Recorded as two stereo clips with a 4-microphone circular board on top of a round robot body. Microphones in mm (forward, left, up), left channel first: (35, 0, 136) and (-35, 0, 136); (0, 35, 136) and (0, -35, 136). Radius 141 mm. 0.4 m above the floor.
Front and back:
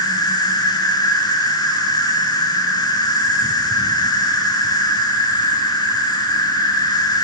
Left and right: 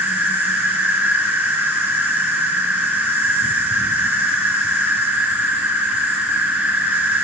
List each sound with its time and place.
0.0 s an insect: 25° right, 6 m